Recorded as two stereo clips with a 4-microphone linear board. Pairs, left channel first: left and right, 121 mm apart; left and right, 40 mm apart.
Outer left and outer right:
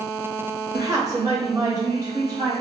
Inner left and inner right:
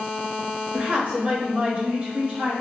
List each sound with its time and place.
0.7 s a woman speaking: 25° right (ahead or behind), 1.1 m; by 2.5 s 30° right (ahead or behind), 2.0 m